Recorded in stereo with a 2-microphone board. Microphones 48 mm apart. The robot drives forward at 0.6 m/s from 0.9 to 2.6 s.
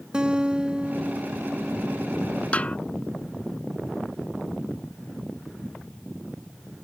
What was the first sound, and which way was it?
A guitar, 20° right (ahead or behind).